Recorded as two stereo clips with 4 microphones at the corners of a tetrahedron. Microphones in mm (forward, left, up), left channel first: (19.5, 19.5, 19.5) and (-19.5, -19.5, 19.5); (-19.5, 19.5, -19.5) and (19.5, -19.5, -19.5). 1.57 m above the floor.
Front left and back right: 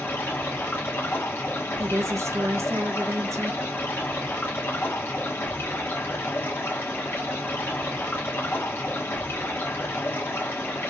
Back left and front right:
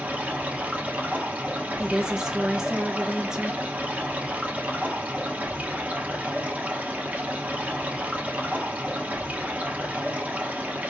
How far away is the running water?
About 1.0 m.